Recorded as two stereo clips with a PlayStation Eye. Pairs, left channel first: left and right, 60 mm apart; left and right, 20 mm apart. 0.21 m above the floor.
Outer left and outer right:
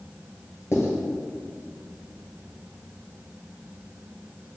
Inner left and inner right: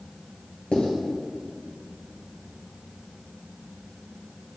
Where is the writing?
55° left (ahead or behind), 1.1 m.